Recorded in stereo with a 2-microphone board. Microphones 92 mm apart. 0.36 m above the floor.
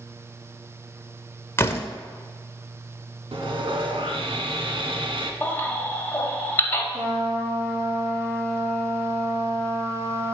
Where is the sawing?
85° right, 0.8 m.